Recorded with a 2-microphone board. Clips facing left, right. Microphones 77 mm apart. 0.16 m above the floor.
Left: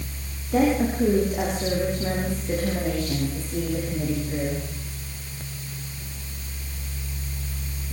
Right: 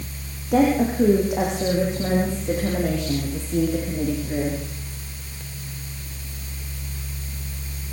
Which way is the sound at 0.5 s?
65° right (ahead or behind).